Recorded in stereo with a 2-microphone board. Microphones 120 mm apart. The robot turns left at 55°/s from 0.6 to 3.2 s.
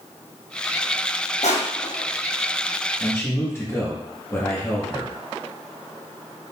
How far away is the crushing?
About 1.0 m.